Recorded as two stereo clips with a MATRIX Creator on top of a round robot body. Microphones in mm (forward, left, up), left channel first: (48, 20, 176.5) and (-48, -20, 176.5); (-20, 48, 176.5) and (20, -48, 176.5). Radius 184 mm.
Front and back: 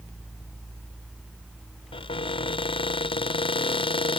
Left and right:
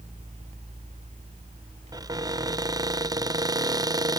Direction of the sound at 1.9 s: 15° right.